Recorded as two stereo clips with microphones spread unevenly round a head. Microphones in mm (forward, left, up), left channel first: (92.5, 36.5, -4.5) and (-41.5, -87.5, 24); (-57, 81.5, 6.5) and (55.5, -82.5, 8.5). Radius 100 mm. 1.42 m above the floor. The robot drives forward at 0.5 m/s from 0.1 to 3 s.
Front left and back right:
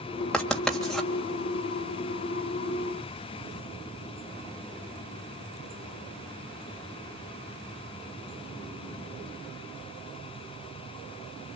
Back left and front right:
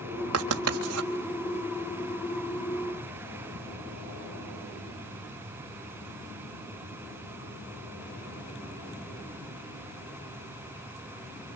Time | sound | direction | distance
0.3 | writing | 45° right | 3.5 m